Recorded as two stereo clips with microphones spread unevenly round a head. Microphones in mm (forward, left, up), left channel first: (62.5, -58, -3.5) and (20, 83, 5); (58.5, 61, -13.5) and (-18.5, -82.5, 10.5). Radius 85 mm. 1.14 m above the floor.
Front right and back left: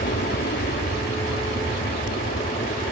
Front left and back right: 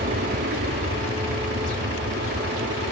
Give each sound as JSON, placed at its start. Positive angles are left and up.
{"t": 0.0, "sound": "an aircraft", "azimuth_deg": -95}